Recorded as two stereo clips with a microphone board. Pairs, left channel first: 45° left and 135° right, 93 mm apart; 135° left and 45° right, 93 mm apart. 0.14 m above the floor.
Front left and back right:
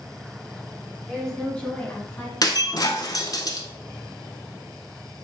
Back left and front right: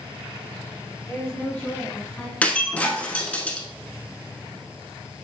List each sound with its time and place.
1.1 s a woman speaking: 140° left, 1.5 m; by 2.3 s 60° left, 1.7 m
2.4 s breaking glass: 65° left, 0.6 m